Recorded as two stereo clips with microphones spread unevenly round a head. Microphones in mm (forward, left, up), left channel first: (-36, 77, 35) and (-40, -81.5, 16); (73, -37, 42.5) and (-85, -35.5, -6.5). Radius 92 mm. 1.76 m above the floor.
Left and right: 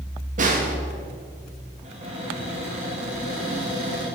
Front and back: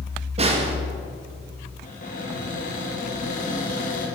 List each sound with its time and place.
0.4 s a snare drum: 120° right, 1.4 m
1.8 s a cupboard door: 35° right, 3 m